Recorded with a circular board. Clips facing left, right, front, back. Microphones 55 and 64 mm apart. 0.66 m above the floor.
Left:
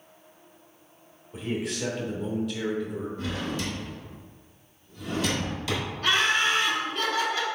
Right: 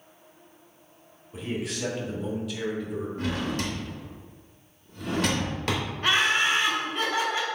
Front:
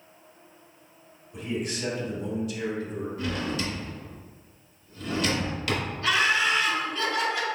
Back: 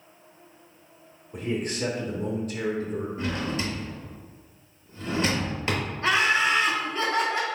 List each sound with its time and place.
1.3 s a man speaking: straight behind, 0.9 m
3.2 s a drawer: 120° right, 0.9 m
6.0 s laughter: 145° right, 0.7 m